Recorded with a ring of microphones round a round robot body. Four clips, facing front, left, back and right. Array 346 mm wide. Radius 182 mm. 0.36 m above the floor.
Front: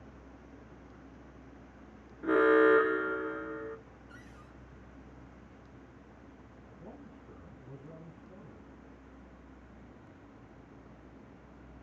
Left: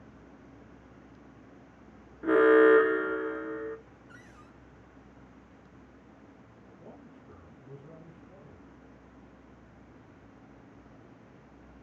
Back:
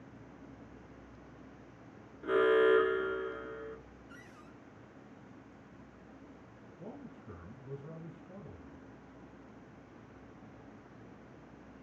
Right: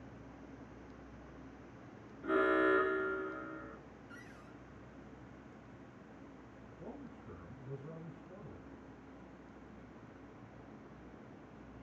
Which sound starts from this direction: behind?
A man speaking, at 6.8 s.